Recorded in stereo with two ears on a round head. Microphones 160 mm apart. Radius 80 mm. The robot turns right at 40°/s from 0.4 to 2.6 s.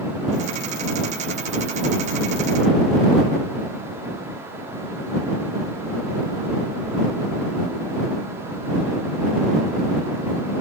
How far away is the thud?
I don't hear a thud.